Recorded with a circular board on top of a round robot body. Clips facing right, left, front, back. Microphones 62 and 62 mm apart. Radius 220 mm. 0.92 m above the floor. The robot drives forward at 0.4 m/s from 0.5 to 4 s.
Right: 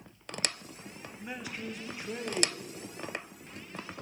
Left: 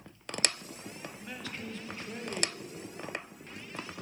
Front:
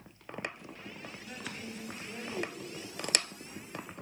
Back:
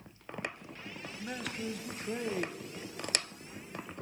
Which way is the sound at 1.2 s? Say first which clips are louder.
Right 4 dB, back 7 dB; 160° right.